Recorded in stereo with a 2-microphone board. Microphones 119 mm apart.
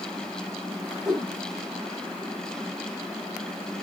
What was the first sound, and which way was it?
A whoosh, centre (ahead or behind).